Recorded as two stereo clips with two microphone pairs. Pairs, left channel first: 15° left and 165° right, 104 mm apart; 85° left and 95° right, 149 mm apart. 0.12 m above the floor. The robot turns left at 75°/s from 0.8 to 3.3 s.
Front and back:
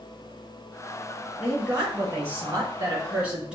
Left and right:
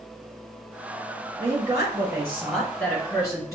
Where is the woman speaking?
95° right, 1.7 m; by 3.6 s 125° left, 1.7 m.